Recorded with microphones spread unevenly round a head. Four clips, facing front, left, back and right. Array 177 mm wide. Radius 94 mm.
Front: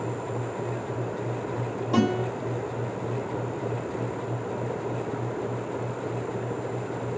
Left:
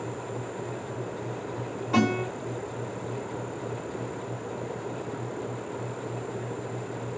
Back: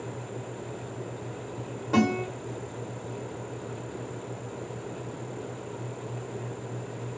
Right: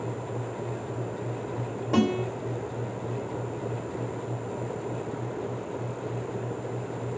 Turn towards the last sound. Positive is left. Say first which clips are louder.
# even, front 1 dB
turn(degrees=-75)